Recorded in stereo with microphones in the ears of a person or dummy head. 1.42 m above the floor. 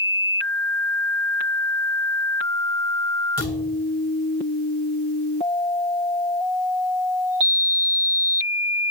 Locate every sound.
3.4 s a thud: 10° left (ahead or behind), 2.5 m